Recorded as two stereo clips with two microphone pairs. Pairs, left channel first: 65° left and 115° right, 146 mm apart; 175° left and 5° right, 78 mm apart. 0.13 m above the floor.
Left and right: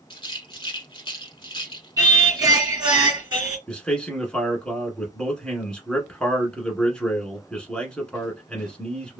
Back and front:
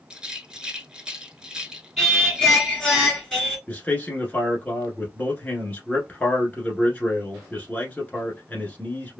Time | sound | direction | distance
0.1 | a rattle | 65° left | 0.8 m
2.0 | singing | 95° right | 1.9 m
3.7 | a man speaking | 145° left | 1.2 m